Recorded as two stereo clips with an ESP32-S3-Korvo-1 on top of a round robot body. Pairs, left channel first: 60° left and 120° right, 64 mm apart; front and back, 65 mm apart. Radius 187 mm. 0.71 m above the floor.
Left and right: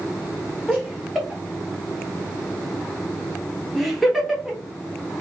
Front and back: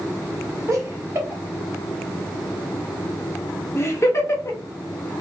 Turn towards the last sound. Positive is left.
turn(degrees=-30)